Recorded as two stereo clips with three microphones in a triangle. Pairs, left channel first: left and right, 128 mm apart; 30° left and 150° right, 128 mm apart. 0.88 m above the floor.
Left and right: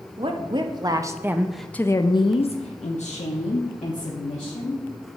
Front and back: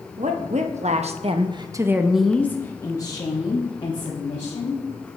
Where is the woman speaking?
135° right, 1.0 m; by 4.8 s 75° left, 1.7 m.